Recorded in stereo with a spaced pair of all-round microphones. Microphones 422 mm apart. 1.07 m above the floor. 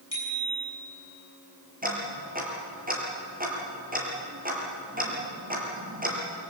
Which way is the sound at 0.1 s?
40° left (ahead or behind).